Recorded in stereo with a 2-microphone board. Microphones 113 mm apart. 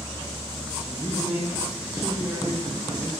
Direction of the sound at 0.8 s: 15° right (ahead or behind).